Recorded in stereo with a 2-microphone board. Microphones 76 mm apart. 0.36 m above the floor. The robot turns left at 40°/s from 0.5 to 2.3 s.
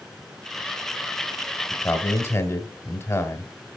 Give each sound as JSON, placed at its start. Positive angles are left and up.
{"t": 1.7, "sound": "a man speaking", "side_deg": 25, "distance_m": 1.7}